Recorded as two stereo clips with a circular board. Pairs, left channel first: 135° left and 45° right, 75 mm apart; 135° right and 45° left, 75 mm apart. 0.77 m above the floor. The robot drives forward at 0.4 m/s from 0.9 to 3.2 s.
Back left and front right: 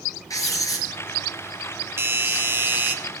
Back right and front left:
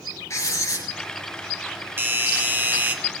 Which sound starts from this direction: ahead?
A doorbell, at 2.0 s.